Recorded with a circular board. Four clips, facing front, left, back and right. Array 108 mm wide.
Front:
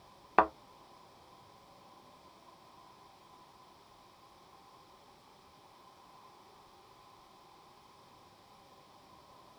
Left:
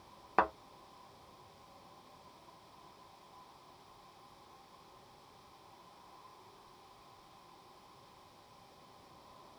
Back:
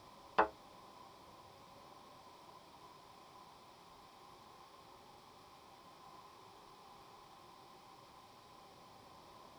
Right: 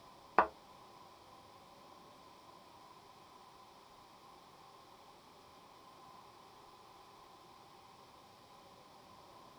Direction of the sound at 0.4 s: Straight ahead.